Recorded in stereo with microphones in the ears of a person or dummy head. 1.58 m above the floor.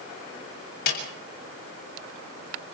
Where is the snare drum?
55° left (ahead or behind), 7.5 m.